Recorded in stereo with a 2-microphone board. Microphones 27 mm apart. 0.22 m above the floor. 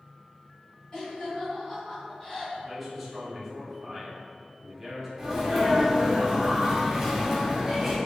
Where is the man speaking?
Centre (ahead or behind), 1.1 m.